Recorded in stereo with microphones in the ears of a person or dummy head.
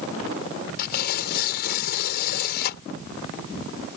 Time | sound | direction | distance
0.8 | tearing paper | 65° left (ahead or behind) | ?